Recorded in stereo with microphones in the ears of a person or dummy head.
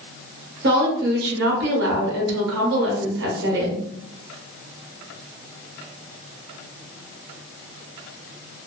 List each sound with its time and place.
0.6 s a woman speaking: 60° right (ahead or behind), 1.0 m